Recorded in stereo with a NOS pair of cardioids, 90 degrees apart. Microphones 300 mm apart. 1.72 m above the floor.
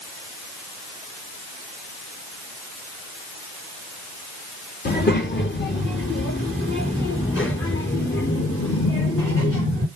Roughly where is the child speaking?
Ahead left.